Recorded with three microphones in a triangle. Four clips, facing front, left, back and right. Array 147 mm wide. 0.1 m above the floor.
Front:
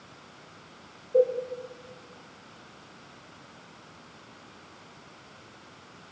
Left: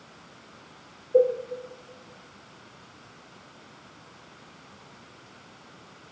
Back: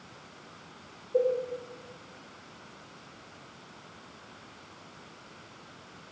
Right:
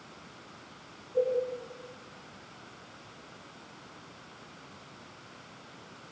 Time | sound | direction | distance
1.1 | a cowbell | 85° left | 4.5 m